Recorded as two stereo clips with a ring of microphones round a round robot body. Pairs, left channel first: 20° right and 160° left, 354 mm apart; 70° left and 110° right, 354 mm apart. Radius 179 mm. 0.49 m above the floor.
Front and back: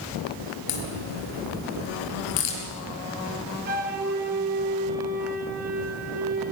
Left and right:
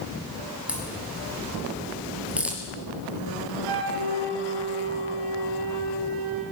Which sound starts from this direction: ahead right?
A crack, at 0.7 s.